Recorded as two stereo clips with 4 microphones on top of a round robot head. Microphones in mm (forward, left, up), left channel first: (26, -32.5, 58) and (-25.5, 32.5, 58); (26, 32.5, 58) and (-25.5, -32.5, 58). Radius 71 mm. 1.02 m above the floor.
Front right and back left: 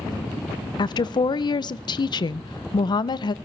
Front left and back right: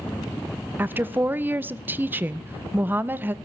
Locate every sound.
0.8 s a woman speaking: 65° right, 0.5 m